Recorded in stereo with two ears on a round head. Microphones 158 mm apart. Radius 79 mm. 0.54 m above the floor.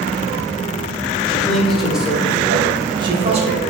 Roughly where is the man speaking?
Centre.